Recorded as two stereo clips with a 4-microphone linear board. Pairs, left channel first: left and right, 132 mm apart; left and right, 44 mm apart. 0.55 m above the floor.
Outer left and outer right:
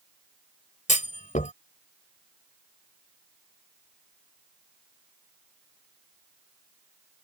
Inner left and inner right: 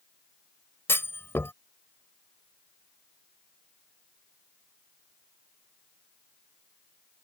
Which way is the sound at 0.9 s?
65° left (ahead or behind).